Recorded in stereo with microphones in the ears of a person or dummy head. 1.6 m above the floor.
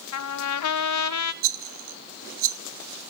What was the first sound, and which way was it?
A trumpet, 85° left.